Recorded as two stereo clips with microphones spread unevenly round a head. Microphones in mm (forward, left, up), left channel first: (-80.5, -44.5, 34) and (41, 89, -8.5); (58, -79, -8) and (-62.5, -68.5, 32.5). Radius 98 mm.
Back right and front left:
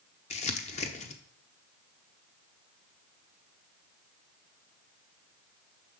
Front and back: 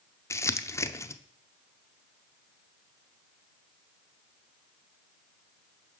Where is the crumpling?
80° right, 0.9 m.